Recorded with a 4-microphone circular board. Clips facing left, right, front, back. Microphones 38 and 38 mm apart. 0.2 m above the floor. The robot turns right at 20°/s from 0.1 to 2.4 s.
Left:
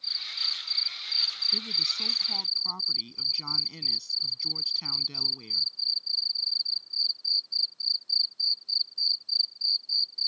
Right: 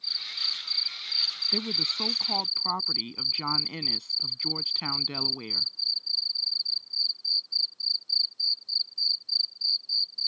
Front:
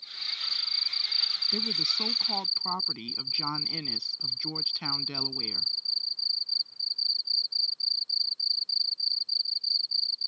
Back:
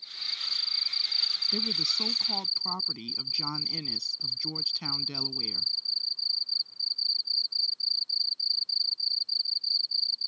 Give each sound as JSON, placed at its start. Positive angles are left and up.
{"t": 1.5, "sound": "a woman speaking", "azimuth_deg": -80}